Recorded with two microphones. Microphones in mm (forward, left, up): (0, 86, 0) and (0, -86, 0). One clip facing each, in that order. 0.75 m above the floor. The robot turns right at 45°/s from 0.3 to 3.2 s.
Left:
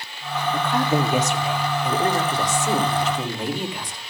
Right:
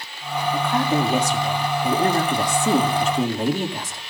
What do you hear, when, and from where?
0.5 s a woman speaking: 175° right, 1.7 m; by 4.0 s 55° right, 1.7 m